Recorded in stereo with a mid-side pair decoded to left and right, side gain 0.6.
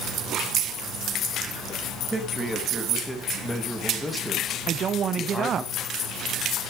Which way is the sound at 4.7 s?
45° right.